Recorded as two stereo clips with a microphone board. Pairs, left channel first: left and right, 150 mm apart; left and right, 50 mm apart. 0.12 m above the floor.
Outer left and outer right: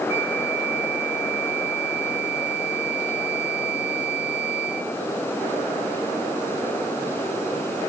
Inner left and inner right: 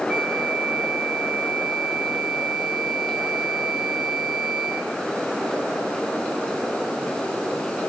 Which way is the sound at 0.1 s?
15° right (ahead or behind).